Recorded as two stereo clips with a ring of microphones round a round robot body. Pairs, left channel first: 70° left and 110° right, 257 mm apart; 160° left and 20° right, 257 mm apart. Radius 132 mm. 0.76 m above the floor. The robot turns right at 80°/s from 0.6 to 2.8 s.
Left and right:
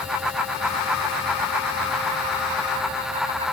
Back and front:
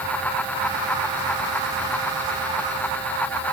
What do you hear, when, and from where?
Only background noise.